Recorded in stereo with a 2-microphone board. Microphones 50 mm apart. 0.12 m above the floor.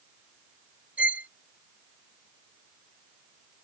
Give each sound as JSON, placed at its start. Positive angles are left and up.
{"t": 1.0, "sound": "a violin", "side_deg": -35}